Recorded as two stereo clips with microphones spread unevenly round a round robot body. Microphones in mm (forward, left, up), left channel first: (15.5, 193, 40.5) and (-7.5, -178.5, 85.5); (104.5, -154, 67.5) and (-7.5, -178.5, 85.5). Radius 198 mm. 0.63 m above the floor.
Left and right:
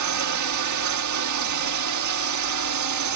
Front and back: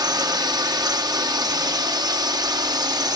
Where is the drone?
115° right.